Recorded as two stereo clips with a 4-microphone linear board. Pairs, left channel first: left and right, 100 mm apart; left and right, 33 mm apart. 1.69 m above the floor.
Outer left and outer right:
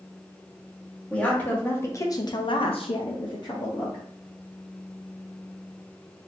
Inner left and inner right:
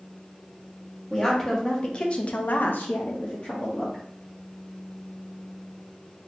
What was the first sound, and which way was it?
A woman speaking, 15° left (ahead or behind).